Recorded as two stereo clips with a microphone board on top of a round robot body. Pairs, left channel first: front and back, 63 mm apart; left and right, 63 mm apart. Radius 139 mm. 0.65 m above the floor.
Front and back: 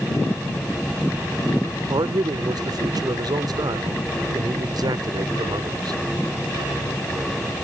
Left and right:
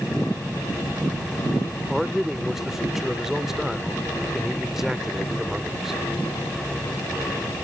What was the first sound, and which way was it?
A man speaking, 175° right.